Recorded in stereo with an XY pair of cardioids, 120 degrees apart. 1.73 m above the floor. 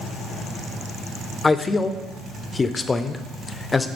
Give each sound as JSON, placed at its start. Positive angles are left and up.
{"t": 1.4, "sound": "a man speaking", "azimuth_deg": 25, "distance_m": 0.6}